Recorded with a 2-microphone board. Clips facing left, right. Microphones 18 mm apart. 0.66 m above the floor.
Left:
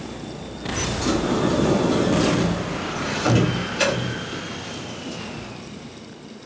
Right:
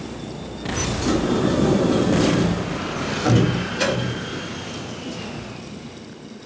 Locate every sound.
1.0 s a sliding door: 35° left (ahead or behind), 1.3 m